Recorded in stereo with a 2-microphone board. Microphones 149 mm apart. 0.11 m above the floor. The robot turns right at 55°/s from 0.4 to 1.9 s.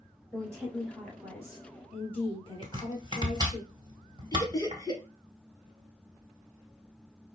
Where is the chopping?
30° right (ahead or behind), 1.5 m.